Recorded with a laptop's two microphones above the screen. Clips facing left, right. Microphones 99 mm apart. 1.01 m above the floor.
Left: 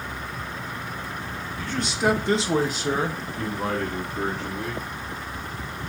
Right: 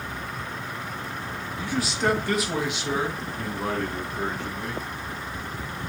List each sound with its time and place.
1.6 s a man speaking: 20° right (ahead or behind), 0.6 m; by 4.8 s 70° left (ahead or behind), 1.9 m